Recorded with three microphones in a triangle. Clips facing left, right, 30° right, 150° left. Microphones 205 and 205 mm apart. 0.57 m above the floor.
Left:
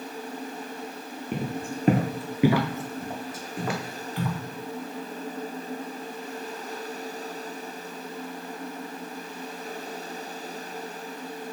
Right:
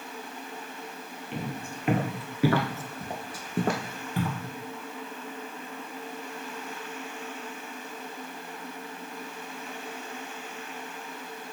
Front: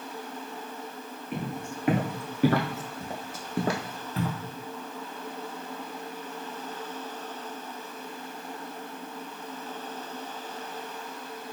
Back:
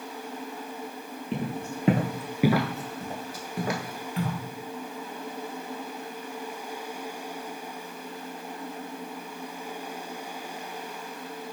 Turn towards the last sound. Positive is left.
turn(degrees=-75)